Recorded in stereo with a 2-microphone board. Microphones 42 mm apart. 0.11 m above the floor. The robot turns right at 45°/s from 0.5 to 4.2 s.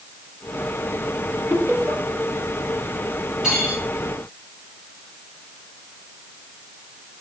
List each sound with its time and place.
1.5 s laughter: 65° right (ahead or behind), 3.5 m
3.4 s cutlery clinking: 10° right (ahead or behind), 5 m; by 3.8 s 5° left (ahead or behind), 5 m